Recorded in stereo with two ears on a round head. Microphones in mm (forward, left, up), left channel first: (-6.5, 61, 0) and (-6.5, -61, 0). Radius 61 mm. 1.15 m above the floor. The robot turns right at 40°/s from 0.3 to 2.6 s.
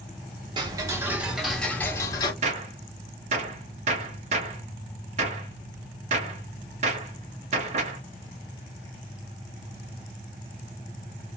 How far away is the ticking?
About 0.7 m.